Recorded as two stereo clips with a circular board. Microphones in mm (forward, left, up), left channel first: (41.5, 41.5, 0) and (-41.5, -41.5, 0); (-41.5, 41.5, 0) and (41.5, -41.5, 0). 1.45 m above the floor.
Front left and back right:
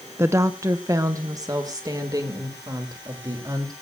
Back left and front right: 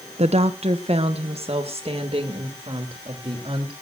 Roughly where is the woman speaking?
Ahead right.